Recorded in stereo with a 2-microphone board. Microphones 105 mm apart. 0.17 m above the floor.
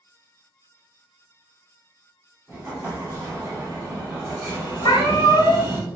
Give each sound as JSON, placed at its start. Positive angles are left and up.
{"t": 2.5, "sound": "an explosion", "side_deg": -25, "distance_m": 1.0}
{"t": 4.8, "sound": "a cat meowing", "side_deg": 45, "distance_m": 0.9}